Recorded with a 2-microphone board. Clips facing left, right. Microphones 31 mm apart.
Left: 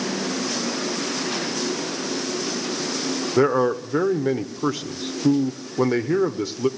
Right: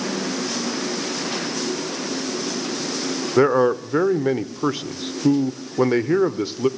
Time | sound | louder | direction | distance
3.4 | a man speaking | right 3 dB | 15° right (ahead or behind) | 0.8 m